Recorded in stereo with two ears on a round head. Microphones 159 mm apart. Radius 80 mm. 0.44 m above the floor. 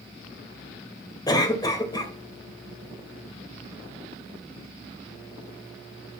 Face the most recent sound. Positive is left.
turn(degrees=20)  # may be behind; listen again after turning